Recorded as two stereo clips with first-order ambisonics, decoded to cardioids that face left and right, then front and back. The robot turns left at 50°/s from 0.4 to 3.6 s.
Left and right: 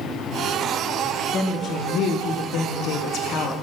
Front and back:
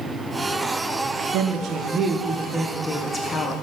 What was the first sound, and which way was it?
A woman speaking, 160° left.